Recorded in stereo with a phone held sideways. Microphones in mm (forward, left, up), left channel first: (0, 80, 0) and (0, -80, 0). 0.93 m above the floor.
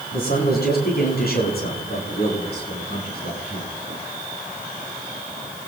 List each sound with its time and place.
0.1 s a man speaking: 75° left (ahead or behind), 8 m; by 3.7 s 85° left, 10 m